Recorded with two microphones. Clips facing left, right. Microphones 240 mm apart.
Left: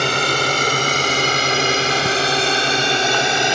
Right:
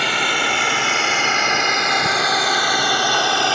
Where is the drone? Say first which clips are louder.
Left 4 dB; 45° left (ahead or behind); by 3.5 s 15° left (ahead or behind).